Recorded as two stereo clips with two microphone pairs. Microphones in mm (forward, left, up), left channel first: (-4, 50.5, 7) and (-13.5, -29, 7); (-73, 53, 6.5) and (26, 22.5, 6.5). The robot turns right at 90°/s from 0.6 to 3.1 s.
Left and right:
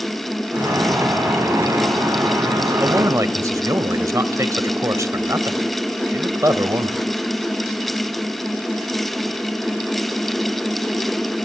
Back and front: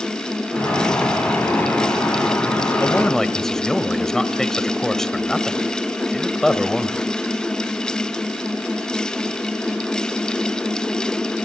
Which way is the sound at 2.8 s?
145° right.